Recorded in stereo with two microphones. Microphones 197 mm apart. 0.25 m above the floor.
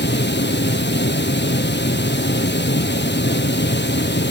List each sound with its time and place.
0.0 s running water: 70° left (ahead or behind), 1.6 m